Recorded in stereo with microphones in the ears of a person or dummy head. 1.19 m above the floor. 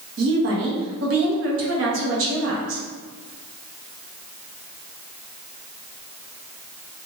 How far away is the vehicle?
I don't hear a vehicle.